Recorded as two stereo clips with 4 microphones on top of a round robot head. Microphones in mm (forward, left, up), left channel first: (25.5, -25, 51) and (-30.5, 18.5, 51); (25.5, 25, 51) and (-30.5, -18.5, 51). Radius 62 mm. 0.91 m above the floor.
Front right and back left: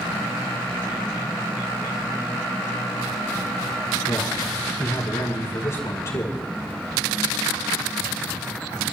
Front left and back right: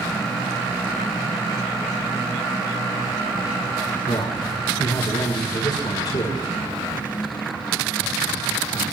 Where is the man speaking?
10° left, 4 m.